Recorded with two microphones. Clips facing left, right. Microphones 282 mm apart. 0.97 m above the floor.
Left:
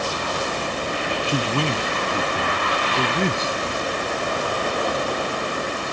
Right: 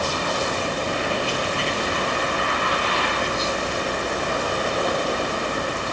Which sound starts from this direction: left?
A man speaking, at 1.3 s.